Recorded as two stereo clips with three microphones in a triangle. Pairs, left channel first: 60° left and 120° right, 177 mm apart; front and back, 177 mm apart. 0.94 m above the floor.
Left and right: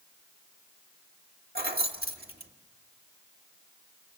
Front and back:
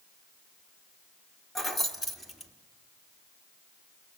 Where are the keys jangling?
90° right, 1.6 m.